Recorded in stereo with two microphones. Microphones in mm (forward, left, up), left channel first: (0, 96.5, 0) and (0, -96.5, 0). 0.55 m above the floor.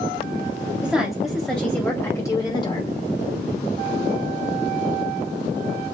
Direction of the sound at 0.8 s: 5° right (ahead or behind).